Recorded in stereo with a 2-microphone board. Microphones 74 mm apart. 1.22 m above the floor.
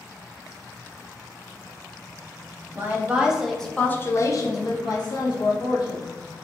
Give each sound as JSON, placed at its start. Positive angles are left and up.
{"t": 2.8, "sound": "a woman speaking", "side_deg": -25, "distance_m": 0.8}